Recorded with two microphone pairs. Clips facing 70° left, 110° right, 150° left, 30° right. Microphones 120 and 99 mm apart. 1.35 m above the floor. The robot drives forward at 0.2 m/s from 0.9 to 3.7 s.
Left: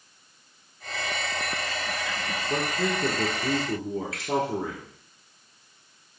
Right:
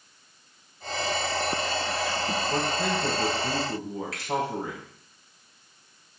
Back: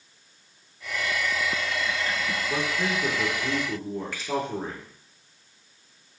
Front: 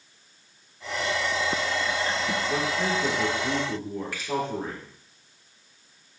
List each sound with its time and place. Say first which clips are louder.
2.5 s a man speaking: left 2 dB, even; 70° left, 1.2 m; by 4.8 s 85° left, 1.2 m
4.1 s a finger snap: left 1 dB, even; 120° right, 1.4 m